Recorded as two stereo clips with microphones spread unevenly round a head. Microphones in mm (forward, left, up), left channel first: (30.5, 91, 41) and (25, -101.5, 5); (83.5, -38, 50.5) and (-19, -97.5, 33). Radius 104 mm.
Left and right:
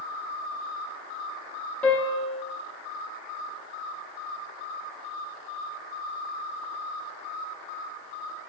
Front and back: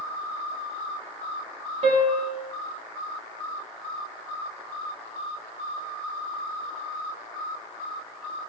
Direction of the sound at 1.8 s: 175° left.